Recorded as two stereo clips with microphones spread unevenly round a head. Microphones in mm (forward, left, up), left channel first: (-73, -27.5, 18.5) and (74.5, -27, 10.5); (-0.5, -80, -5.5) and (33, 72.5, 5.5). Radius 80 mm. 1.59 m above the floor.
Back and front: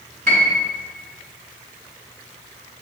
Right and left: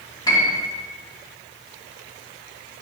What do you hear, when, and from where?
0.3 s a piano: 35° right, 1.8 m